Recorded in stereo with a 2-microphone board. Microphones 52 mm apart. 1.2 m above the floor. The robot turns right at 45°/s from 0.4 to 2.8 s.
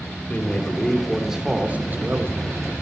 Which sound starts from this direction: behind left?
A man speaking, at 0.3 s.